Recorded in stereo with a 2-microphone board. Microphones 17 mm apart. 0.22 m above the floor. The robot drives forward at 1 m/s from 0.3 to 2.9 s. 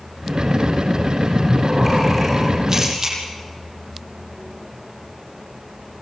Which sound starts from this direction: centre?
Breathing, at 1.3 s.